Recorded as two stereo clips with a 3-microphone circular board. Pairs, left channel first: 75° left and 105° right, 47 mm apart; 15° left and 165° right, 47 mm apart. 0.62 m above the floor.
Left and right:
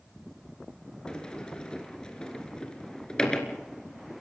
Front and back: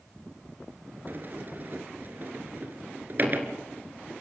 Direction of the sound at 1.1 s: 150° left.